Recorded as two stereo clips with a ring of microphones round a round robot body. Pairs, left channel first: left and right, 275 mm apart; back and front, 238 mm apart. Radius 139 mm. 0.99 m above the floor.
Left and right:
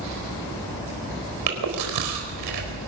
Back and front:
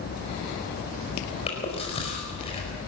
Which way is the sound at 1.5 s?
110° right.